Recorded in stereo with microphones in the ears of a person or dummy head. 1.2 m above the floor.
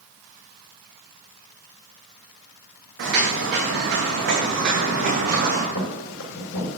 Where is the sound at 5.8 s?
65° left (ahead or behind), 4.5 m.